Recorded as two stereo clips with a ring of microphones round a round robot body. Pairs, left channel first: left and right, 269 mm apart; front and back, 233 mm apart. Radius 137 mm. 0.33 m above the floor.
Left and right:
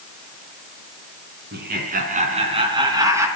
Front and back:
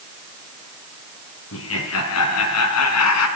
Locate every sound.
1.5 s laughter: 35° right, 4 m; by 3.3 s 10° right, 4 m